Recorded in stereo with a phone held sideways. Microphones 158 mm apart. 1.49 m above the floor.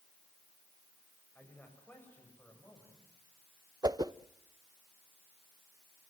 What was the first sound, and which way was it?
A man speaking, 15° left (ahead or behind).